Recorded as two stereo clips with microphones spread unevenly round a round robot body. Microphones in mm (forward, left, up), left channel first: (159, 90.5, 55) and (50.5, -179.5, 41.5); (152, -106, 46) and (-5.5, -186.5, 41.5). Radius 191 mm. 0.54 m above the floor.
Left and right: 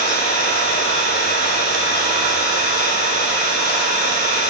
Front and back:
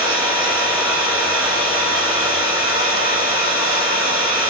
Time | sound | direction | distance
0.0 | an engine running | 130° left | 3 m